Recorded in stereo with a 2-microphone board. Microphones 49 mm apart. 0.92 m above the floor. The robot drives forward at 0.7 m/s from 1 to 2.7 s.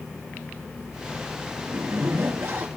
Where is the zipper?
65° right (ahead or behind), 1.6 m; by 2.7 s 55° right (ahead or behind), 1.7 m.